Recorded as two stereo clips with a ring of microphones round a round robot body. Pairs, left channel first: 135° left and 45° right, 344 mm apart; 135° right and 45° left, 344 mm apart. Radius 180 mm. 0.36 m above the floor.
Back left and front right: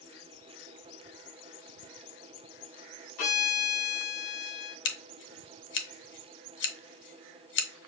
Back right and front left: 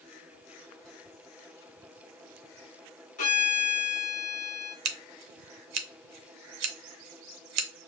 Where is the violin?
155° left, 1.6 m.